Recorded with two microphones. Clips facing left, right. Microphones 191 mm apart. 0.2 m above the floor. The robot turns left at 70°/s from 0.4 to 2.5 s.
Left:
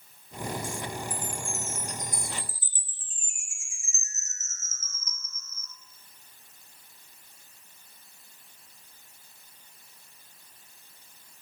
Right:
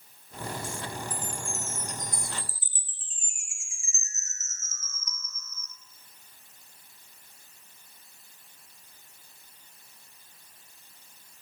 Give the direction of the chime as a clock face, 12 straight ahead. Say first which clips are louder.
Left 1 dB; 7 o'clock.